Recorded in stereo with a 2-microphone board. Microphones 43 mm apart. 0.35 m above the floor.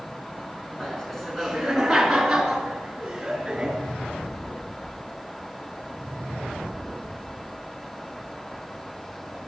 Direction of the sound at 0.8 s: 5° left (ahead or behind).